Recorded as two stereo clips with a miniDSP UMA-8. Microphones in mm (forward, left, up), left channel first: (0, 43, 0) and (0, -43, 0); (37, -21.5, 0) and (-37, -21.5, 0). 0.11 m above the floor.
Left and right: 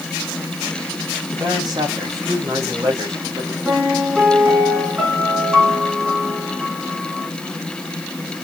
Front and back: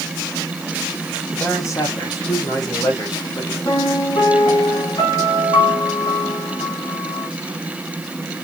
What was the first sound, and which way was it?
A man speaking, 55° right.